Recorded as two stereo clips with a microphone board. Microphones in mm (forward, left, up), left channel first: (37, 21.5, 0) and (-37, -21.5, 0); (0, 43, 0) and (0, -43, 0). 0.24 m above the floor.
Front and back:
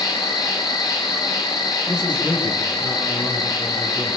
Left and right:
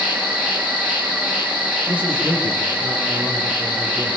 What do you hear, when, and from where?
0.0 s an insect: 20° right, 4 m
1.9 s a man speaking: 65° right, 8.5 m